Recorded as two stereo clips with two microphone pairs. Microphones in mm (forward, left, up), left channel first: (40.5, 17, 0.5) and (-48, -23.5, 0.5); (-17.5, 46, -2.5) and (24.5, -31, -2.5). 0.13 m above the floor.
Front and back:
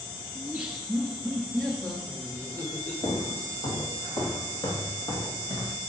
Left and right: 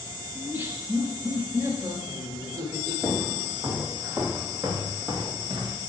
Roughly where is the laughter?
Right.